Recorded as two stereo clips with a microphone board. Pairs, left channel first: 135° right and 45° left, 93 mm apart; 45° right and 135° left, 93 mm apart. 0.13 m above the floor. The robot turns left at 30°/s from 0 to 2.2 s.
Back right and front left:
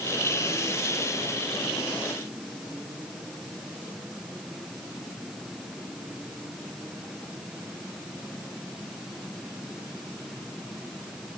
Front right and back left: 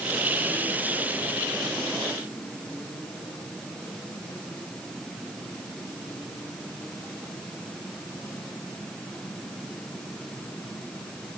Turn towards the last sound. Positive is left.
No sound to turn to.